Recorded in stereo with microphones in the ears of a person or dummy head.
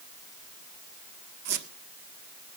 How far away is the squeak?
About 1.4 m.